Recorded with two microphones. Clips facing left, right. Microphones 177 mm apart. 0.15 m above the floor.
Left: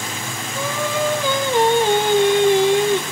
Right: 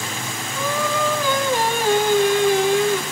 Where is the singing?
25° left (ahead or behind), 1.2 m.